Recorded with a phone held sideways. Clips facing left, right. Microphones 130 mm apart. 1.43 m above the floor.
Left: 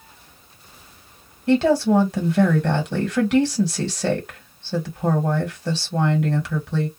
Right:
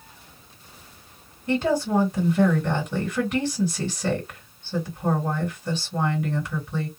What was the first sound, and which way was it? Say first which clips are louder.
A woman speaking: left 6 dB; 85° left.